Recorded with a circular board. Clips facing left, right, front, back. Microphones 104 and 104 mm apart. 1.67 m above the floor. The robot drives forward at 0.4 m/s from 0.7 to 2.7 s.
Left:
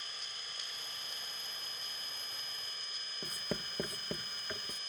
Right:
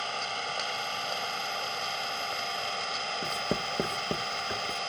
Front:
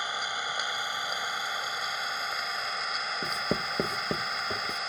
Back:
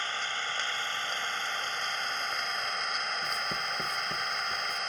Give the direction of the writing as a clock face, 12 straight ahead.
1 o'clock.